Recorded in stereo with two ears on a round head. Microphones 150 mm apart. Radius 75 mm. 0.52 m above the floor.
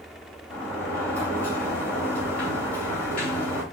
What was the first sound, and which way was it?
A sliding door, 10° left (ahead or behind).